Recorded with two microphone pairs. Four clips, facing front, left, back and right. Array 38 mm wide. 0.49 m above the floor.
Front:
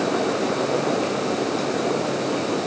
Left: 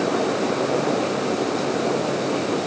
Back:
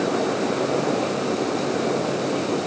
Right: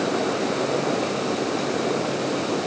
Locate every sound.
Only background noise.